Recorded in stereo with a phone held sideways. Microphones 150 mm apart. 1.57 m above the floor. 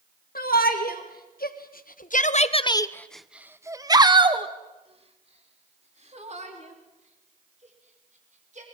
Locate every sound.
0.3 s a shout: 80° left, 2 m; by 8.6 s 55° right (ahead or behind), 5 m